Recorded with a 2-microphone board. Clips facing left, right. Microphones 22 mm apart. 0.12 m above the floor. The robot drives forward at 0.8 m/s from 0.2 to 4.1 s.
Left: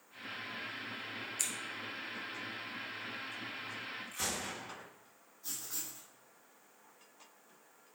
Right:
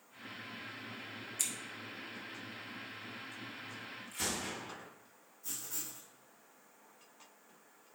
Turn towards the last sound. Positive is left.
turn(degrees=40)  # may be behind; listen again after turning